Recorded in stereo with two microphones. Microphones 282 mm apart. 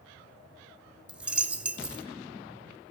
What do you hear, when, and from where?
1.1 s a dropped coin: 5° right (ahead or behind), 0.8 m